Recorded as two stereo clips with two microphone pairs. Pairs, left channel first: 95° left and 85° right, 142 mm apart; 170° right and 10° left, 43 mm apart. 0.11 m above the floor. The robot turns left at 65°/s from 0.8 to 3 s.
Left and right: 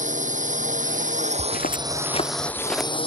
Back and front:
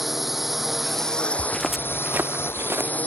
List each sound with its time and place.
0.0 s a drone: 75° right; by 3.1 s 140° left
1.4 s footsteps: 130° left; by 2.9 s 5° right